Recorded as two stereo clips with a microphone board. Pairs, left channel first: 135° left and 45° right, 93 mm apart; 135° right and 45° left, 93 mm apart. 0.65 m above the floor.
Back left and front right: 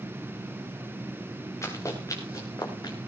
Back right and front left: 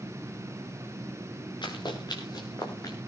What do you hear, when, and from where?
1.6 s running footsteps: 170° right, 4.5 m; by 3.0 s 175° left, 3.5 m